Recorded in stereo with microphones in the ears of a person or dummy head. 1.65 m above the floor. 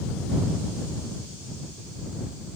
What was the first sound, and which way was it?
Only background noise.